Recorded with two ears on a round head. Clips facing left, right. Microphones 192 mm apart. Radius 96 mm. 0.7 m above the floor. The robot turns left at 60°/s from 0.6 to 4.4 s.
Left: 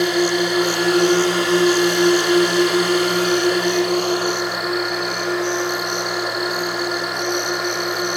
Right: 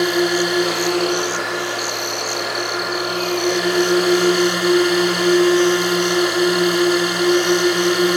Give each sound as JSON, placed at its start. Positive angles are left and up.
{"t": 0.0, "sound": "a drone", "azimuth_deg": 180}